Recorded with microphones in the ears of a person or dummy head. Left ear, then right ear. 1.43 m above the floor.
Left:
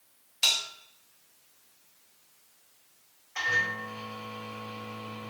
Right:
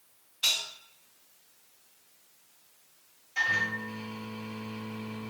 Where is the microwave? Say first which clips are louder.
Even; 50° left (ahead or behind), 1.8 m.